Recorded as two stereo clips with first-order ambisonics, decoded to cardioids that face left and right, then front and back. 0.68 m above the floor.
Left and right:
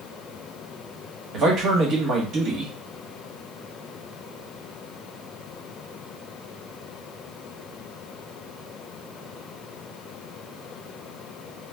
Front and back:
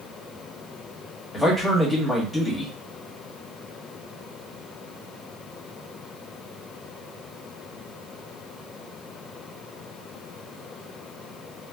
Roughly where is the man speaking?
Right.